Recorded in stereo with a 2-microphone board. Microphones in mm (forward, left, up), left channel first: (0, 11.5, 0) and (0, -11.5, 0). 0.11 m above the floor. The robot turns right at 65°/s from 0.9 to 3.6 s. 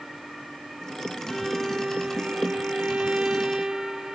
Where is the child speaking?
I don't hear a child speaking.